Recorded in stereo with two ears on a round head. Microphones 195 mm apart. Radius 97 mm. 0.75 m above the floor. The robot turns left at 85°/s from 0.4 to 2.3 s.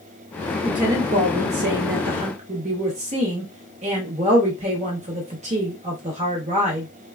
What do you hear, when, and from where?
0.6 s a woman speaking: 5° left, 0.7 m; by 6.9 s 140° right, 0.7 m